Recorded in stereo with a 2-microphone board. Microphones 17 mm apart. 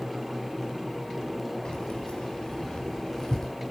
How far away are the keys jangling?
About 3.5 m.